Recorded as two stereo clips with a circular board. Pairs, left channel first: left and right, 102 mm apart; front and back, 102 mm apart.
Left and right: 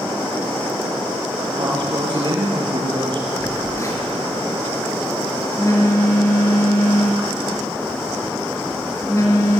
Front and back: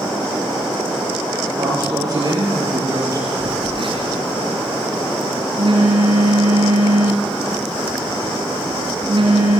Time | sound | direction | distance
1.6 | a man speaking | 130° right | 7 m
3.4 | a phone buzzing | 150° left | 5 m